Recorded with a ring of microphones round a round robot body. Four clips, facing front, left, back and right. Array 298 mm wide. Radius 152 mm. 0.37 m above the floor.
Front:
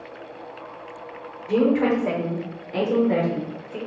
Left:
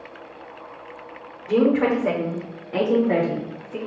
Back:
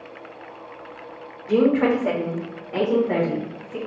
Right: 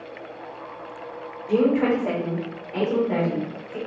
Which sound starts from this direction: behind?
A woman speaking, at 1.5 s.